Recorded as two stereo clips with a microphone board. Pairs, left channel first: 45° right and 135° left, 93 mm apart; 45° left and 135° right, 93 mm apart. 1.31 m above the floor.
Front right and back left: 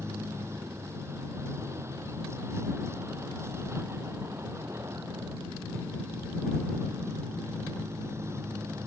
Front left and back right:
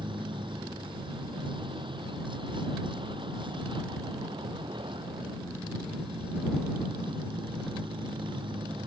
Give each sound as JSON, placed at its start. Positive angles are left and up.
{"t": 0.0, "sound": "a vehicle", "azimuth_deg": -165}